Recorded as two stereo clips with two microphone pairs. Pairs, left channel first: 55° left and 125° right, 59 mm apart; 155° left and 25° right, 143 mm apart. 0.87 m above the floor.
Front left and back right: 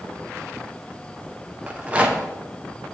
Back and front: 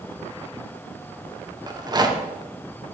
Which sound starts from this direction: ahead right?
A rattle, at 1.7 s.